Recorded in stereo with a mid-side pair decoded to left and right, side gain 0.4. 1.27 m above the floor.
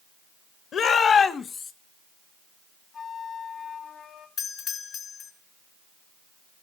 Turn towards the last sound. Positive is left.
turn(degrees=70)